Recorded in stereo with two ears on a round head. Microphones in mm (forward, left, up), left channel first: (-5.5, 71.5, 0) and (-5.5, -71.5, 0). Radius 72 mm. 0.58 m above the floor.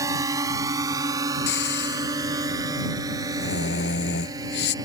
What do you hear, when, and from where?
0.0 s a drone: 20° right (ahead or behind); by 4.8 s 25° right (ahead or behind)
1.5 s snoring: 85° left